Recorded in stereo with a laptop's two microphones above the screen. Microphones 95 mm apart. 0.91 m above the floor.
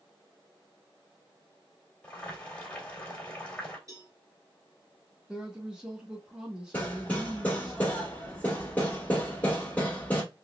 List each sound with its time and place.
2.0 s boiling: 15° left (ahead or behind), 2.5 m
3.9 s a cowbell: 35° right (ahead or behind), 1.9 m
5.3 s a woman speaking: 10° right (ahead or behind), 1.3 m
6.7 s hammering: 20° left (ahead or behind), 2 m